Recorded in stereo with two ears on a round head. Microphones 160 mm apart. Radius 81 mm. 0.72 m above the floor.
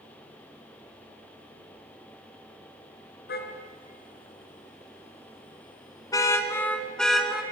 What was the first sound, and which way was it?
A car horn, 60° left (ahead or behind).